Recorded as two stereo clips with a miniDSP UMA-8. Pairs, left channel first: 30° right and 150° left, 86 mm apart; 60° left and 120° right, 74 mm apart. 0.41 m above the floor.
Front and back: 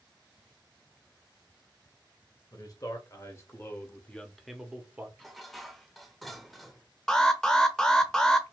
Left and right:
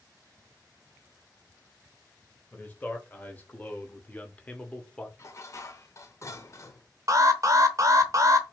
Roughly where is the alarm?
Right.